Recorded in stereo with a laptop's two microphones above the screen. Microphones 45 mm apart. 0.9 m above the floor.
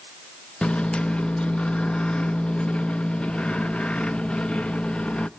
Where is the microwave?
25° left (ahead or behind), 0.5 m.